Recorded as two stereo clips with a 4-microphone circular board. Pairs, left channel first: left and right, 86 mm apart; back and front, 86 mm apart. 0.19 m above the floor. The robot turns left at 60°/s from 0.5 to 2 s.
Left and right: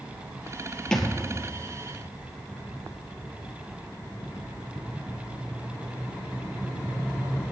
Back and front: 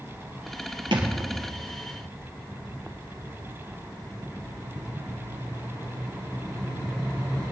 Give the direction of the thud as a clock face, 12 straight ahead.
12 o'clock.